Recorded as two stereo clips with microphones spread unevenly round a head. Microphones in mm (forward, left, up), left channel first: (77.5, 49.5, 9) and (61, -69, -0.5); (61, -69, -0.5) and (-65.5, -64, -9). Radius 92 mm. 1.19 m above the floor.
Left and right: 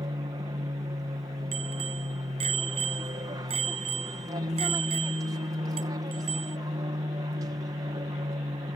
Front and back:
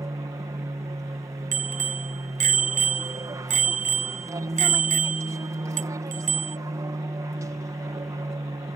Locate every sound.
0.0 s an aircraft: 135° right
1.5 s a bicycle bell: 160° right